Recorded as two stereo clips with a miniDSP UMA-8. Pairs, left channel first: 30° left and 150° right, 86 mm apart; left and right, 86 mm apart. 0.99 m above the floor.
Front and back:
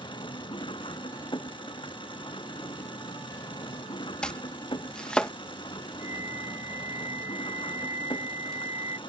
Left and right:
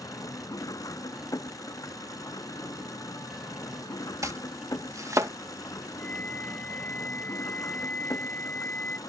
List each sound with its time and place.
0.0 s an engine running: 40° left
4.2 s chopping: 45° right
6.0 s a flute: 160° left